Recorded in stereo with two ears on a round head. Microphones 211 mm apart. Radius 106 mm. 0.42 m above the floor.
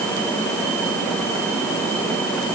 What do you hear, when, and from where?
Only background noise.